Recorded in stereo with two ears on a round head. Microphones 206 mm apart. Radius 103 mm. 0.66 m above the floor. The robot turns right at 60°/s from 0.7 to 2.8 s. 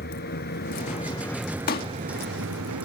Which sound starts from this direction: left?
A pop, at 1.7 s.